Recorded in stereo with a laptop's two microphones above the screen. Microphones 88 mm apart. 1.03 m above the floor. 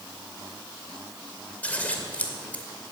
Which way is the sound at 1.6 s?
20° left (ahead or behind).